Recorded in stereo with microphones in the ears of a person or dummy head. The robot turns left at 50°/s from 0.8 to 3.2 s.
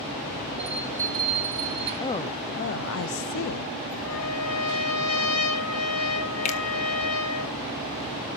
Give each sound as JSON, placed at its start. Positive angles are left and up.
{"t": 0.6, "sound": "a bell", "azimuth_deg": -5, "distance_m": 6.5}
{"t": 2.0, "sound": "a woman speaking", "azimuth_deg": 165, "distance_m": 0.7}
{"t": 4.0, "sound": "a trumpet", "side_deg": 75, "distance_m": 3.0}
{"t": 6.5, "sound": "a finger snap", "side_deg": 40, "distance_m": 1.5}